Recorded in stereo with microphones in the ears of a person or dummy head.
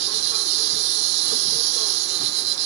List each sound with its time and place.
0.0 s an insect: 65° right (ahead or behind)